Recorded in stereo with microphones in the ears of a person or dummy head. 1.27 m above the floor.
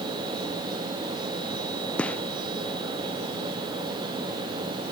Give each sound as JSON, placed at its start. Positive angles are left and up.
{"t": 2.0, "sound": "a gunshot", "side_deg": 5}